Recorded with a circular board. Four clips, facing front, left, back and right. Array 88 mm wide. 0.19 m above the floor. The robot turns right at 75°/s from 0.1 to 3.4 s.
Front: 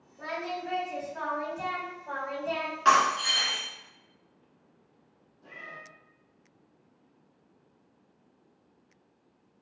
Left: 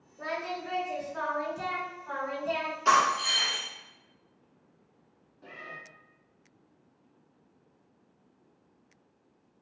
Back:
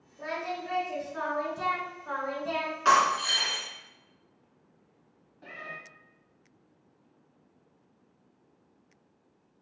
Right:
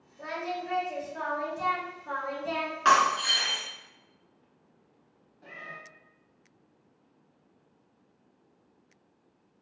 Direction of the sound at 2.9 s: 85° right.